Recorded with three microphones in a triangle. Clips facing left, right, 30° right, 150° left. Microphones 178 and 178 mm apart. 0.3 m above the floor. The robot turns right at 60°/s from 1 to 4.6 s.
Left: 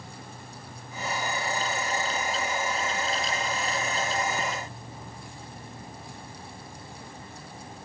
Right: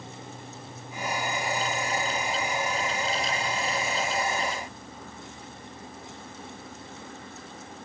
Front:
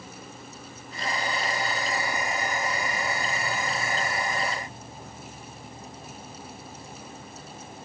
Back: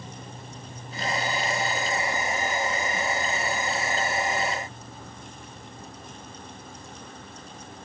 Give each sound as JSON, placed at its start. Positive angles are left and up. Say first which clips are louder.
{"t": 0.0, "sound": "an insect", "louder": "right 2 dB, back 1 dB", "azimuth_deg": -175, "distance_m": 1.1}